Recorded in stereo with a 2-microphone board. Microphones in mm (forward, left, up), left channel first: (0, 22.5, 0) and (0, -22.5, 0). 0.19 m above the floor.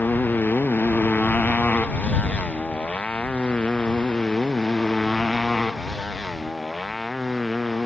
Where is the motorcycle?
45° left (ahead or behind); by 7.9 s centre (ahead or behind).